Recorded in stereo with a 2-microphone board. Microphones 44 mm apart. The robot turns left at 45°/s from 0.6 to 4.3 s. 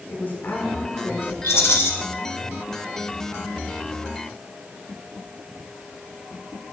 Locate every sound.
0.1 s a woman speaking: 100° left, 1.3 m; by 1.3 s 70° left, 1.3 m
1.4 s a rattle: 80° left, 1.0 m; by 1.9 s 75° left (ahead or behind), 1.0 m